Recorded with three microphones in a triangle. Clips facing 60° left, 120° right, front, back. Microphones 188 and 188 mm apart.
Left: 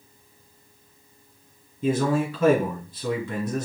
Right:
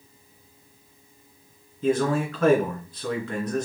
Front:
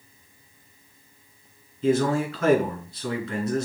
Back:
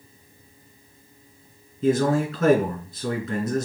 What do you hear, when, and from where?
1.8 s a man speaking: 140° left, 3 m